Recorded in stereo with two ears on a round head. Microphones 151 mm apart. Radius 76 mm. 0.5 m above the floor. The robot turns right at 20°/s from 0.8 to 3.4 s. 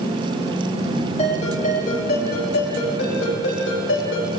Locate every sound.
1.2 s a ringtone: 35° left, 8.5 m; by 4.3 s 80° left, 8.5 m